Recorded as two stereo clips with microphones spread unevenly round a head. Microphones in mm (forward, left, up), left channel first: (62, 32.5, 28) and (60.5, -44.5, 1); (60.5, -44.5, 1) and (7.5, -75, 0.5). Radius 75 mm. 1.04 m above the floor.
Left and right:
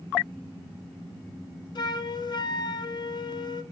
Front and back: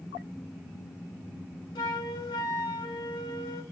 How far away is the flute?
About 1.1 m.